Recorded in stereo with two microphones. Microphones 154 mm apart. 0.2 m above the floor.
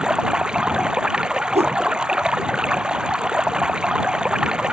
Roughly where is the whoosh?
Right.